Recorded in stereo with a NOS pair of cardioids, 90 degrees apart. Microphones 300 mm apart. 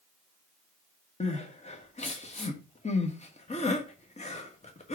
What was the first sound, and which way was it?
Crying, 20° left.